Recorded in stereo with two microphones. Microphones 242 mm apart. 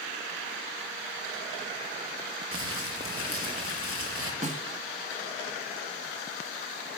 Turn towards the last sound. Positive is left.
turn(degrees=-30)  # may be behind; listen again after turning